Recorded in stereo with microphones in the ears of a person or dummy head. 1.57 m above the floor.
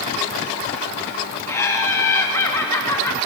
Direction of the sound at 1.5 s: 10° left (ahead or behind).